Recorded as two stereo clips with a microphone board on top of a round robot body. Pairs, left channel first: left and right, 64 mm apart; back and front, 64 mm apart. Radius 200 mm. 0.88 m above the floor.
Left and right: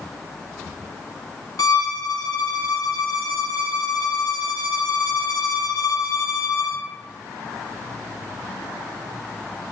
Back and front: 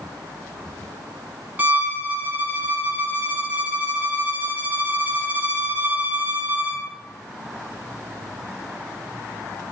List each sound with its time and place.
1.6 s a violin: 65° left, 1.0 m